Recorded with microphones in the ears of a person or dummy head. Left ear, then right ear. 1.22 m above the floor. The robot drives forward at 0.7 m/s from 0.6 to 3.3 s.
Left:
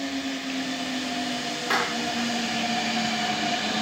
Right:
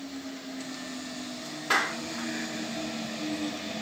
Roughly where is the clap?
Centre.